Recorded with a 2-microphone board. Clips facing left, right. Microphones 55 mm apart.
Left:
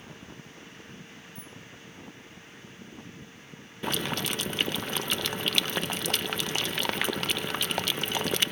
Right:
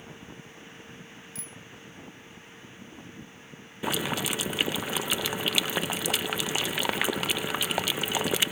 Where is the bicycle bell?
80° right.